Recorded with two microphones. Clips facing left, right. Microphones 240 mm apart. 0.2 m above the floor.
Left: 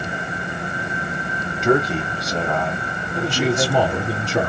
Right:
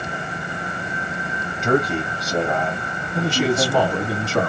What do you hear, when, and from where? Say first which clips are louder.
1.6 s a man speaking: left 1 dB; centre (ahead or behind), 1.3 m; by 4.1 s 5° right (ahead or behind), 1.3 m
3.1 s a man speaking: right 1 dB; 10° left (ahead or behind), 1.5 m